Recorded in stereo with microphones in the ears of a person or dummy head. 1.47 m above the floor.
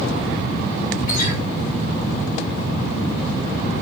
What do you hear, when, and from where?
1.1 s a guitar: 45° left (ahead or behind), 5.5 m